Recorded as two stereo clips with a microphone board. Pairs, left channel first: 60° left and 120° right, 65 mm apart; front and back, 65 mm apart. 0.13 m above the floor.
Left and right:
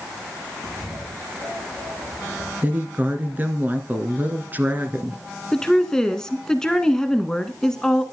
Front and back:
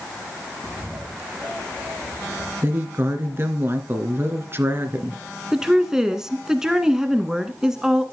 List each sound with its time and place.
0.6 s a bird: 105° right, 6.5 m
2.6 s a woman speaking: 165° right, 1.7 m
5.5 s a woman speaking: 120° left, 1.1 m